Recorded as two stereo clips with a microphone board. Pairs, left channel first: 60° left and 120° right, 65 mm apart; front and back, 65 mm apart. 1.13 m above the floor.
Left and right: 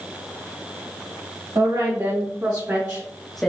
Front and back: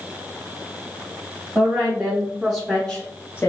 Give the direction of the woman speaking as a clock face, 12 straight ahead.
3 o'clock.